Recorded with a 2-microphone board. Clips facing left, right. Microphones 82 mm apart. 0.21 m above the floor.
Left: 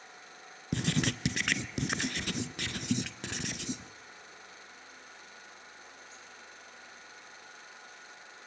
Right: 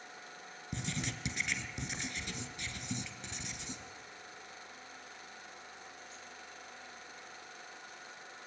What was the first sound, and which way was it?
Writing, 70° left (ahead or behind).